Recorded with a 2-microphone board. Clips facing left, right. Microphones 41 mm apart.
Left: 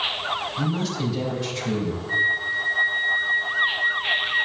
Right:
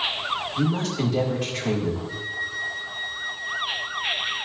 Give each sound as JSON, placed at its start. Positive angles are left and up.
{"t": 0.6, "sound": "a woman speaking", "side_deg": -65, "distance_m": 2.5}
{"t": 2.1, "sound": "a flute", "side_deg": 25, "distance_m": 0.6}